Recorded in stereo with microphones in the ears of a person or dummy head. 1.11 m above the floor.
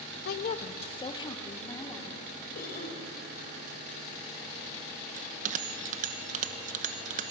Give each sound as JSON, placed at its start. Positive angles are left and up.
{"t": 0.2, "sound": "a woman speaking", "side_deg": 60, "distance_m": 0.7}
{"t": 2.5, "sound": "a cough", "side_deg": 60, "distance_m": 4.0}
{"t": 5.2, "sound": "a bell", "side_deg": -45, "distance_m": 1.0}